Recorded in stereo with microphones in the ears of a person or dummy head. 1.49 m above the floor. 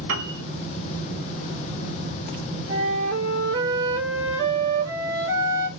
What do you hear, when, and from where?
0.1 s a piano: 65° right (ahead or behind), 1.2 m
2.7 s a flute: 70° right (ahead or behind), 3.5 m